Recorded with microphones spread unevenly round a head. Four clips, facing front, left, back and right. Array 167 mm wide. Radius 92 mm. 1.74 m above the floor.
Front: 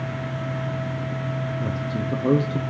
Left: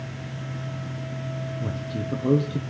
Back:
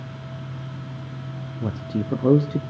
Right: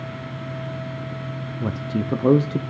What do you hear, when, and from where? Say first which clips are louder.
1.6 s a man speaking: right 9 dB, front 1 dB; 150° right, 0.5 m